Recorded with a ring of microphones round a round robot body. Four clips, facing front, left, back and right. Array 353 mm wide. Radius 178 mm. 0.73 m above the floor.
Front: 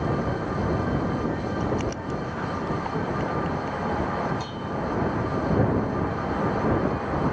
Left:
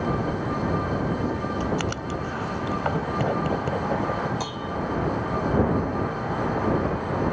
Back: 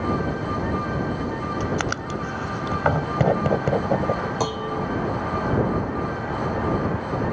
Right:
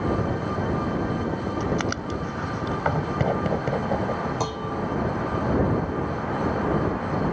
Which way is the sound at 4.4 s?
160° right.